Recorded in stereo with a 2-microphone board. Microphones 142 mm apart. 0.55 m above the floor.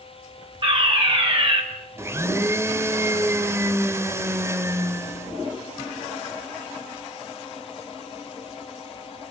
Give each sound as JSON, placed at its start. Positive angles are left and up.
{"t": 0.6, "sound": "a fire alarm", "side_deg": -40, "distance_m": 4.0}
{"t": 2.0, "sound": "a blender", "side_deg": -20, "distance_m": 0.9}